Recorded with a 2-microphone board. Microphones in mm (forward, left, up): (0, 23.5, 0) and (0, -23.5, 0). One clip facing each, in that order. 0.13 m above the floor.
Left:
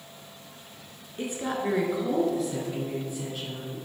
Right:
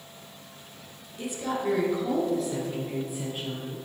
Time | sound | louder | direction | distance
1.2 | a woman speaking | even | 40° left (ahead or behind) | 1.8 m